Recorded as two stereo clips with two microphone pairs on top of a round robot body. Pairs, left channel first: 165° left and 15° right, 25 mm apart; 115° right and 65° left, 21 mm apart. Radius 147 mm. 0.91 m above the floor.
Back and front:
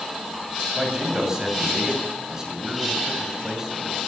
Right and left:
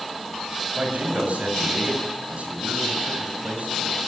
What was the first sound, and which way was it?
A man speaking, 55° left.